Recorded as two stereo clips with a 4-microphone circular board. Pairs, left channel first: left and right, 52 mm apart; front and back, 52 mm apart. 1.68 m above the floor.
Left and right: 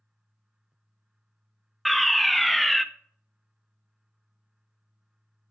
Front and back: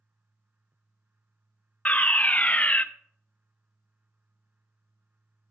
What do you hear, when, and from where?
1.9 s a fire alarm: straight ahead, 0.6 m